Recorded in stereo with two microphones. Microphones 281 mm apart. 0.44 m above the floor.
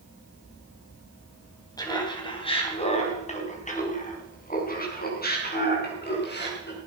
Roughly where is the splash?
I don't hear a splash.